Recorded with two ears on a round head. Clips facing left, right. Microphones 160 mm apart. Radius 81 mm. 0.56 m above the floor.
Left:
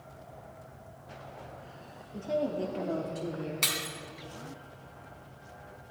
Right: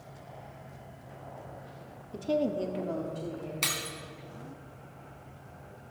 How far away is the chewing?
I don't hear chewing.